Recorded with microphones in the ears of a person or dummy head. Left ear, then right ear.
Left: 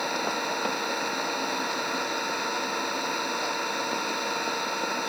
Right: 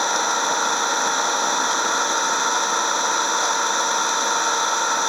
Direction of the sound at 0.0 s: 45° right (ahead or behind).